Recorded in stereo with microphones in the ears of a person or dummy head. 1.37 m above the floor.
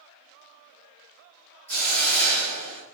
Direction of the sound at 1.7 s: 10° left (ahead or behind).